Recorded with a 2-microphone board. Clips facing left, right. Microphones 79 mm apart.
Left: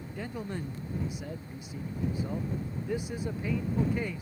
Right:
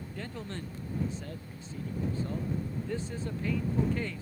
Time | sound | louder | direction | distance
0.2 | a man speaking | left 4 dB | 15° left (ahead or behind) | ?